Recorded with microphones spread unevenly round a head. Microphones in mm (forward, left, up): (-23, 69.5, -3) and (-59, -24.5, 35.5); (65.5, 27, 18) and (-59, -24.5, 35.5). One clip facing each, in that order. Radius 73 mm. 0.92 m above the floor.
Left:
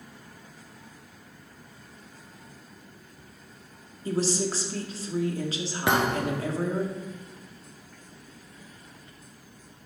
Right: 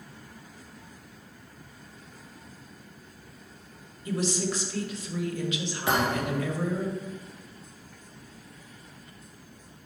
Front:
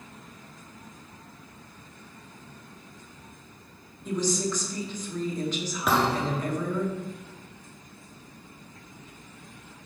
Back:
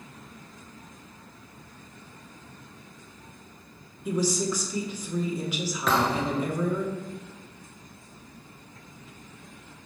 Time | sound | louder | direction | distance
4.0 | a woman speaking | left 2 dB, back 1 dB | 120° left | 1.8 m
5.9 | a thud | left 2 dB, even | 110° left | 1.7 m